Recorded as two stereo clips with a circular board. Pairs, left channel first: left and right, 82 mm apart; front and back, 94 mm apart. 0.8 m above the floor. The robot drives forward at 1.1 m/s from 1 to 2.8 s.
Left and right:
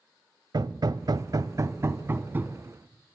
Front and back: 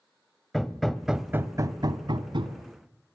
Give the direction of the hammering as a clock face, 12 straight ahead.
3 o'clock.